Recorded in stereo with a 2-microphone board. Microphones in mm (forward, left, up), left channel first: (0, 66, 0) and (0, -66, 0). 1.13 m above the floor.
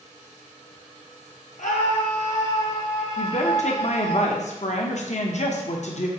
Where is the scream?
65° left (ahead or behind), 1.2 m; by 4.2 s 60° left (ahead or behind), 3.5 m.